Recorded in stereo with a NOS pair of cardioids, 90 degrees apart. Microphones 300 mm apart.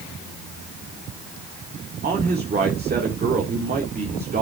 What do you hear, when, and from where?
2.0 s a man speaking: 30° right, 2.5 m